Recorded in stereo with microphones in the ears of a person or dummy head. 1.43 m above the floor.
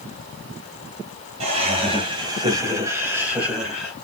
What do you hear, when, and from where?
1.4 s laughter: 40° right (ahead or behind), 2.0 m; by 3.9 s centre (ahead or behind), 2 m